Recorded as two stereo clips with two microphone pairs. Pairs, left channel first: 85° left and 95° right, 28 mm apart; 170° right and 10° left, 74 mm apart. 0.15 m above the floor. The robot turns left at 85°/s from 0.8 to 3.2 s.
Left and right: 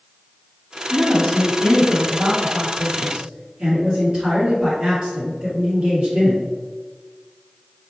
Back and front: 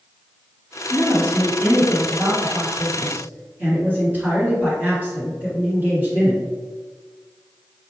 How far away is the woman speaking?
About 1.8 m.